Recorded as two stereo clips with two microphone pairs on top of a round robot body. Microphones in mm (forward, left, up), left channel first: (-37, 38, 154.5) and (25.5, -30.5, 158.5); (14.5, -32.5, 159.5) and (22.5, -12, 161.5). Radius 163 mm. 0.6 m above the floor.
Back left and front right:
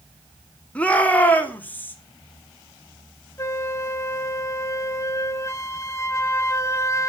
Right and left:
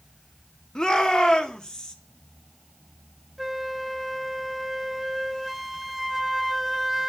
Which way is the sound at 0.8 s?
155° right.